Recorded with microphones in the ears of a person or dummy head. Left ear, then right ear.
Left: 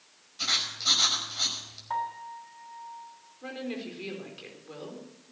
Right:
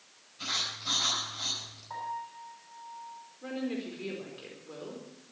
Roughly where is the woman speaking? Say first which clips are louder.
Even; centre.